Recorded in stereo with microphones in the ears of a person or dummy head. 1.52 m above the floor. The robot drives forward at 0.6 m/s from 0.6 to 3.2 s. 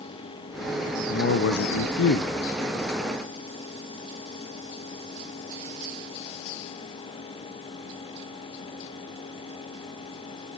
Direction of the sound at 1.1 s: 55° left (ahead or behind).